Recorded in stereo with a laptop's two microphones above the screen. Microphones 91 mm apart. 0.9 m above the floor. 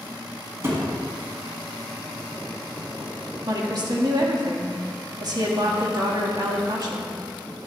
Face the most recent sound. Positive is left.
turn(degrees=-50)  # may be behind; listen again after turning